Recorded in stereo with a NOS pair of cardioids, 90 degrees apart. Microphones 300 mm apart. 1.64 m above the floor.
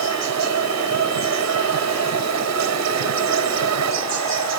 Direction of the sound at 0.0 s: 60° right.